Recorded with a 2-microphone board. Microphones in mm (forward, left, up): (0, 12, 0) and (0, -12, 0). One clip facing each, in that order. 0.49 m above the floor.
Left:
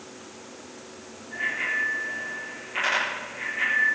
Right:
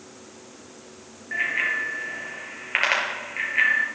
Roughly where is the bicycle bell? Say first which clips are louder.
Right 3 dB; right.